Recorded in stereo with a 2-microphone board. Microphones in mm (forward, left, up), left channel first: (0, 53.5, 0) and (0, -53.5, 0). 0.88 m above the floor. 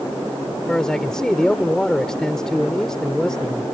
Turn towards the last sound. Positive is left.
turn(degrees=5)  # may be behind; listen again after turning